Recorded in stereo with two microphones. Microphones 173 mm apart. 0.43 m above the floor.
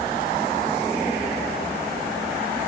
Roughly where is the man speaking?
No man speaking in this recording.